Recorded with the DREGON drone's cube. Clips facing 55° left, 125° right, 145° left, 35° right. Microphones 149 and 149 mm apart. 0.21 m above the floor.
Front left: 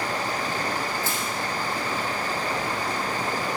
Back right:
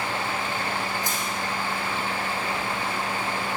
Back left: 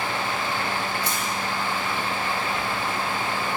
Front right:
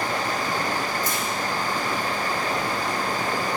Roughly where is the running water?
Ahead.